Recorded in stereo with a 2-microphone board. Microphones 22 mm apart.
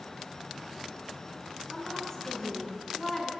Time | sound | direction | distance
1.7 | a woman speaking | 10° left (ahead or behind) | 6.5 m